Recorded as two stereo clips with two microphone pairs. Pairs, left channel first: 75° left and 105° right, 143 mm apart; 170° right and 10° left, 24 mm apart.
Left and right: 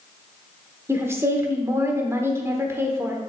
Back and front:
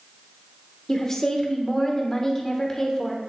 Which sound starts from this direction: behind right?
A woman speaking, at 0.9 s.